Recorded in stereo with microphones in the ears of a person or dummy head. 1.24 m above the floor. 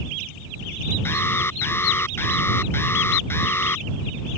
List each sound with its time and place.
1.1 s an alarm: 10° left (ahead or behind)